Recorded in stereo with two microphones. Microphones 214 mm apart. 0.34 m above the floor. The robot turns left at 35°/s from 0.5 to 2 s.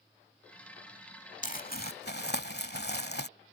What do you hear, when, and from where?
1.4 s crumpling: 35° left (ahead or behind); by 3.3 s 50° left (ahead or behind)